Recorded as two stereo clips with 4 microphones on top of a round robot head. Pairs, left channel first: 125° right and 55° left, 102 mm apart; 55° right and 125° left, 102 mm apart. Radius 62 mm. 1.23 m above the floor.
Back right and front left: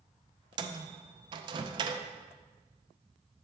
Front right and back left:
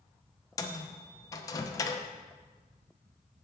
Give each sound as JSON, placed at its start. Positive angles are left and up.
{"t": 0.6, "sound": "a microwave", "azimuth_deg": 5, "distance_m": 0.6}